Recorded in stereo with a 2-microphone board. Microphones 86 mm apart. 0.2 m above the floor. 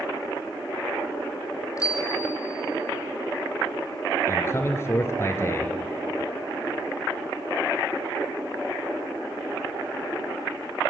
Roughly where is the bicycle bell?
Left.